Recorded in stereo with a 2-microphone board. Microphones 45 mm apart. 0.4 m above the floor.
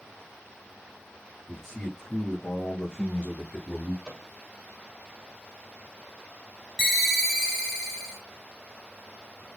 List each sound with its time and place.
1.5 s a man speaking: centre (ahead or behind), 1.7 m; by 4.0 s 30° left (ahead or behind), 1.3 m
4.0 s a microwave: 10° right (ahead or behind), 1.3 m
6.8 s a ringtone: 5° left (ahead or behind), 1.2 m